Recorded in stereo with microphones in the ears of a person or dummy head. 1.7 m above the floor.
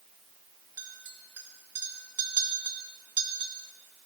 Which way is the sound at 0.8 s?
20° right (ahead or behind).